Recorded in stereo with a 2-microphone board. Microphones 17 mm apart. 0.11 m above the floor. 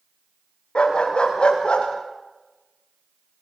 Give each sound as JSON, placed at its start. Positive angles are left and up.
{"t": 0.8, "sound": "a dog barking", "side_deg": 60, "distance_m": 7.5}